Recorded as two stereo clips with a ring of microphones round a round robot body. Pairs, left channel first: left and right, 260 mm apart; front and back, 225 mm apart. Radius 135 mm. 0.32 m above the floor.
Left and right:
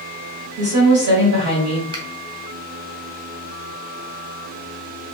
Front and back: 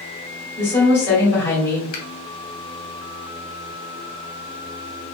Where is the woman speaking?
75° right, 1.8 m.